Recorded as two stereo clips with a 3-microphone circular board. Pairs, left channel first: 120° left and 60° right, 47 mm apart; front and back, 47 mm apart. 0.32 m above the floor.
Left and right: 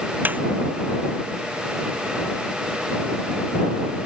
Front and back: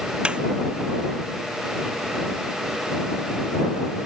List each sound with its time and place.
0.2 s a snare drum: 110° right